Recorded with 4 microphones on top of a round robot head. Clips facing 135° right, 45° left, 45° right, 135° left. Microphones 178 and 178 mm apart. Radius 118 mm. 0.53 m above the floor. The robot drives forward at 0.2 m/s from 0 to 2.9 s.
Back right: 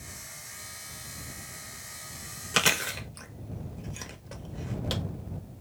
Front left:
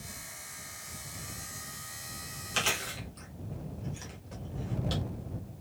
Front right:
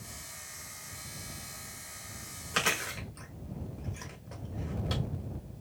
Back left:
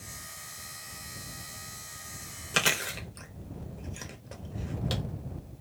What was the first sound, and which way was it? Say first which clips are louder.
Chewing: back right 5 dB, back left 2 dB; 165° right.